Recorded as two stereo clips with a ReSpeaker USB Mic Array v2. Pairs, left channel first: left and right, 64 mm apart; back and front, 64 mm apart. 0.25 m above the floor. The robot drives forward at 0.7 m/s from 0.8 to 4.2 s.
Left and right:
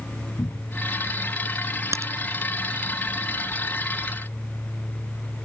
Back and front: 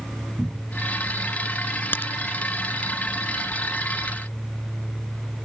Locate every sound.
0.4 s a cupboard door: 80° left
1.9 s a crack: 125° right